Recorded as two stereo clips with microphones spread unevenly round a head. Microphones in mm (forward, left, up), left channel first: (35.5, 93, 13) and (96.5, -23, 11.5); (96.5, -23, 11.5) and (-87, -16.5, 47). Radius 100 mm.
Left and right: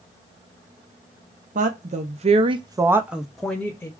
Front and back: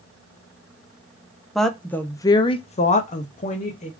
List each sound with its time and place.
1.6 s a woman speaking: 85° right, 0.7 m; by 3.9 s 40° left, 0.8 m